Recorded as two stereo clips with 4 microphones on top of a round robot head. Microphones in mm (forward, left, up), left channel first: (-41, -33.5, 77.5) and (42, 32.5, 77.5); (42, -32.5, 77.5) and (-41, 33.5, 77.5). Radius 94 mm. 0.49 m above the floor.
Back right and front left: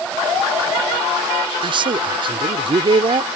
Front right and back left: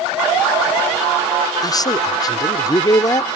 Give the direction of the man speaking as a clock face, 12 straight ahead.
12 o'clock.